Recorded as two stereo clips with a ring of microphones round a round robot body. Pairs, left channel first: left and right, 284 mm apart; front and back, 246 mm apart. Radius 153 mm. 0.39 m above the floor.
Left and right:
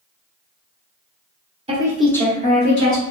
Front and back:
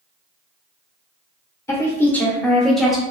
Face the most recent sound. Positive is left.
turn(degrees=90)